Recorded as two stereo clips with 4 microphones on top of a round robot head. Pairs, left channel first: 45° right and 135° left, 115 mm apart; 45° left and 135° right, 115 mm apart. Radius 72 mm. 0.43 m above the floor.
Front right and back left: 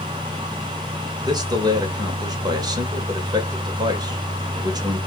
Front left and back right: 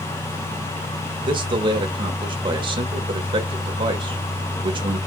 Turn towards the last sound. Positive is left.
turn(degrees=-175)